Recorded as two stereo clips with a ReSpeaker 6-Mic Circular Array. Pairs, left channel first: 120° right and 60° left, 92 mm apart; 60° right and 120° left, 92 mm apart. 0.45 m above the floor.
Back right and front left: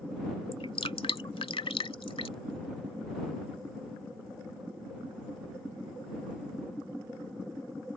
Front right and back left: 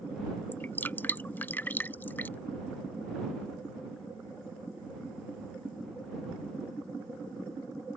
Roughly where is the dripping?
Behind right.